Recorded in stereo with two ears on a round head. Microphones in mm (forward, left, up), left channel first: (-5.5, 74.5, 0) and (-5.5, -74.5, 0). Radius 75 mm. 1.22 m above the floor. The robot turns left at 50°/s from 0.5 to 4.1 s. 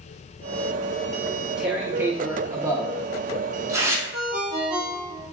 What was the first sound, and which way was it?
Tearing paper, centre (ahead or behind).